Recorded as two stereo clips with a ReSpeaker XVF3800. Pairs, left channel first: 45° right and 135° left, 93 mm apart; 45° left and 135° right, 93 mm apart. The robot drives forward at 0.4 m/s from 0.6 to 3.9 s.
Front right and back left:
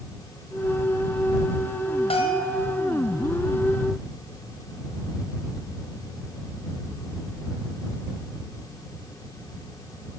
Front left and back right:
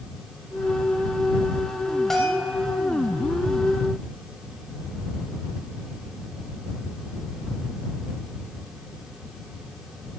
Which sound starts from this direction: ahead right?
A bell, at 2.1 s.